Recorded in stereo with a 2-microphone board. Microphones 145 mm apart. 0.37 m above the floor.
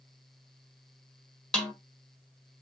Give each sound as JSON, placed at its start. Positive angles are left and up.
{"t": 1.5, "sound": "a snare drum", "side_deg": 5, "distance_m": 1.7}